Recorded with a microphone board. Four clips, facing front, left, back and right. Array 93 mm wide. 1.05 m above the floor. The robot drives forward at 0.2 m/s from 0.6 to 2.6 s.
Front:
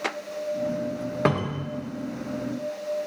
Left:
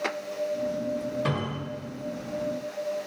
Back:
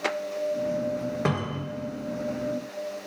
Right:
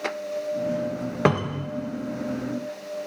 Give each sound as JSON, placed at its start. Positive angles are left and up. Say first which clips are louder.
{"t": 1.2, "sound": "a cupboard door", "louder": "right 7 dB, front 3 dB", "azimuth_deg": -75, "distance_m": 0.9}